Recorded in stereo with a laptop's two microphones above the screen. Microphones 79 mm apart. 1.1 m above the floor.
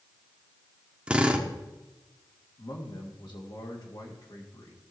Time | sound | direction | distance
1.1 | a drill | 15° right (ahead or behind) | 0.8 m
2.6 | a man speaking | 65° left (ahead or behind) | 2 m